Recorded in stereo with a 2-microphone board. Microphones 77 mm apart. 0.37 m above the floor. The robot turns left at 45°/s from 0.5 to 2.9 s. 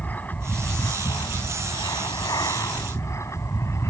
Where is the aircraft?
155° left; by 3.9 s 45° left.